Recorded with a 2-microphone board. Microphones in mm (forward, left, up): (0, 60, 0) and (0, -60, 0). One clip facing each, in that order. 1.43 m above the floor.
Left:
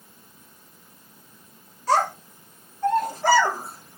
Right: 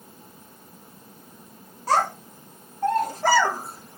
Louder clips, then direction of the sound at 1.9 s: Left 1 dB; 45° right (ahead or behind).